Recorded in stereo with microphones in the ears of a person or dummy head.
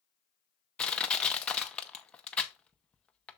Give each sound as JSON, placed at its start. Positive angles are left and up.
{"t": 0.8, "sound": "crushing", "side_deg": 5, "distance_m": 0.8}